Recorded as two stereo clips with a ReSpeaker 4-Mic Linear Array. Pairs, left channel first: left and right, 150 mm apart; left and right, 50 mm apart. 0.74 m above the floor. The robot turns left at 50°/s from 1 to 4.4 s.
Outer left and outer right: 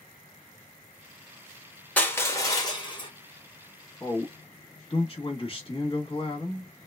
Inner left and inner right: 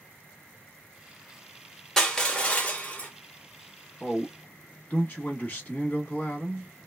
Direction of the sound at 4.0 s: 20° left (ahead or behind).